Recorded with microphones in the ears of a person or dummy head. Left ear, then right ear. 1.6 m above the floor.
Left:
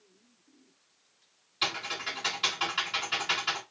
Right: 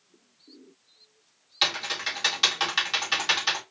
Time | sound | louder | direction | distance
1.6 | typing on a keyboard | right 5 dB | 50° right (ahead or behind) | 2.5 m